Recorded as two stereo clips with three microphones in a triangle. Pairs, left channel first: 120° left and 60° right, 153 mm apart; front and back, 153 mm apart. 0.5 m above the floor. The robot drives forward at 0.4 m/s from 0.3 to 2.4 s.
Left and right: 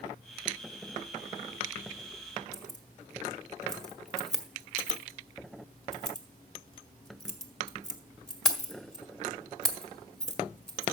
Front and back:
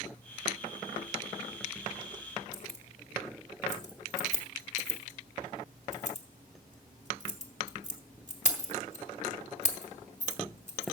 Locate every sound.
2.5 s keys jangling: 35° left, 1.6 m